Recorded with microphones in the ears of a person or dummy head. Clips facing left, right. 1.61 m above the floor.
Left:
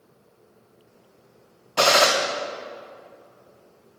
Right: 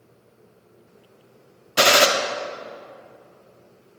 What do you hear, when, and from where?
1.8 s a gunshot: 20° right (ahead or behind), 0.5 m